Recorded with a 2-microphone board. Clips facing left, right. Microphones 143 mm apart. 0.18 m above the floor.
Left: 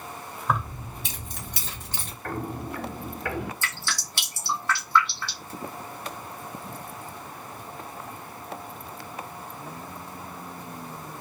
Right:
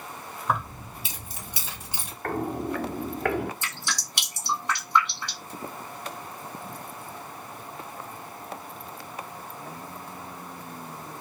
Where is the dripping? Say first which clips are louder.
Left 1 dB; 20° right (ahead or behind), 1.1 m.